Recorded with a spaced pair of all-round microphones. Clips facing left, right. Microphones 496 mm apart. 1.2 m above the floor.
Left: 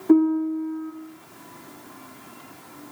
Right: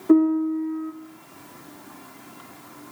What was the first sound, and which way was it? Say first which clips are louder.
A piano: even; 5° left (ahead or behind).